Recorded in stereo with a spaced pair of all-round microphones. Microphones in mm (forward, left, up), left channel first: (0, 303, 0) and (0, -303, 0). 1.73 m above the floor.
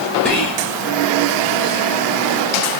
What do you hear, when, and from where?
0.2 s whispering: 5° left (ahead or behind), 0.5 m